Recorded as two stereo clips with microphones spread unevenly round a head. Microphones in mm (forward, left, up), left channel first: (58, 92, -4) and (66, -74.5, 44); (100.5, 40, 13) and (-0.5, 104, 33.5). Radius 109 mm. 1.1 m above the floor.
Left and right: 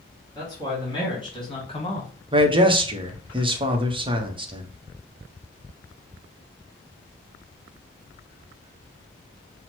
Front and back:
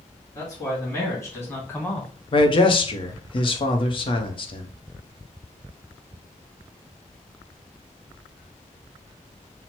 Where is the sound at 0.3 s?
30° left, 2.5 m; by 2.1 s 45° left, 1.3 m.